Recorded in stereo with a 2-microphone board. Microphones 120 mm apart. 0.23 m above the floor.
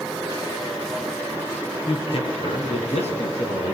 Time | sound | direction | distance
1.9 | a man speaking | 45° left (ahead or behind) | 3 m